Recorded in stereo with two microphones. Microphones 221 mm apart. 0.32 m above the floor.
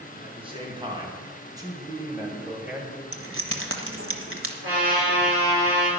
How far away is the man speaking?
About 3 m.